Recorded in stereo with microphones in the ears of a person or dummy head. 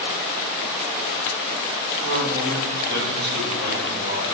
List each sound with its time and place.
2.0 s a man speaking: 55° right (ahead or behind), 2 m